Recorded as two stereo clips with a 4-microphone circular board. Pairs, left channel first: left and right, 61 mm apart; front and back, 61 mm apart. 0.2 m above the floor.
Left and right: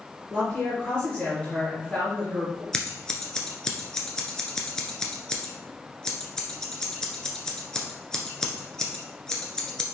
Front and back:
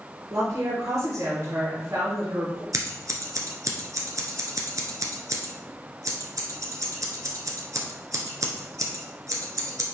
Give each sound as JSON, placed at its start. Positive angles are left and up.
{"t": 0.3, "sound": "a woman speaking", "azimuth_deg": 170, "distance_m": 3.5}
{"t": 2.7, "sound": "scissors", "azimuth_deg": 170, "distance_m": 1.3}